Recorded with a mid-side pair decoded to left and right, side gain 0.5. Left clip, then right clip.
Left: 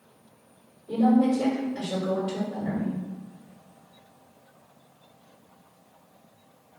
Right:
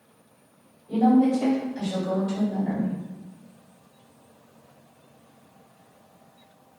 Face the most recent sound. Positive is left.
turn(degrees=70)